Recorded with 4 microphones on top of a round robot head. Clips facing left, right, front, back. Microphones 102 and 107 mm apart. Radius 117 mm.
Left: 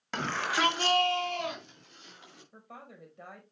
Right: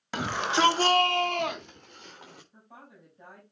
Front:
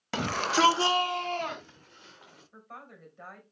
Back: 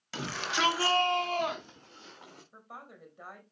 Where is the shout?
5° right, 1.2 m; by 2.4 s 125° right, 2.5 m.